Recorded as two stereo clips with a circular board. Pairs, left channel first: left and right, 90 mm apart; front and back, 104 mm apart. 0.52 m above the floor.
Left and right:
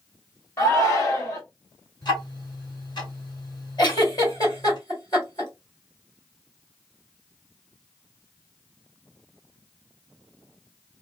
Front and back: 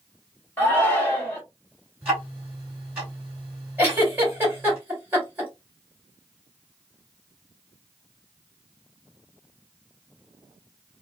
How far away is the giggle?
About 2.0 m.